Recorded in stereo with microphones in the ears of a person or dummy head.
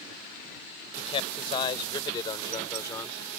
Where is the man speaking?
35° left (ahead or behind); by 3.2 s 20° left (ahead or behind).